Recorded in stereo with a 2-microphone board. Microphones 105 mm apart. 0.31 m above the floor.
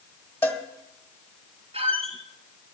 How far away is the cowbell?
About 1.4 m.